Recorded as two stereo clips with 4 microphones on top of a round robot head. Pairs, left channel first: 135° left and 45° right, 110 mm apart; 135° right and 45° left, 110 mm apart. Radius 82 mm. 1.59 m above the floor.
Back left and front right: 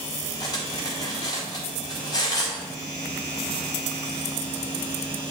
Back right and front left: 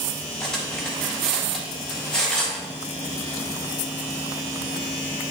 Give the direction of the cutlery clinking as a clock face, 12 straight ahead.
7 o'clock.